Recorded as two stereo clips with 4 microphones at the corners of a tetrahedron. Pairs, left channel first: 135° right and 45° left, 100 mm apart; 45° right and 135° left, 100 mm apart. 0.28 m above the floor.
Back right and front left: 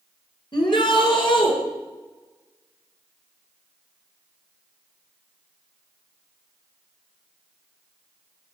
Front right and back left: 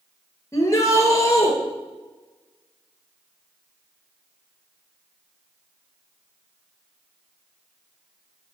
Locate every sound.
0.5 s a shout: 100° right, 4 m; by 1.5 s 105° right, 5.5 m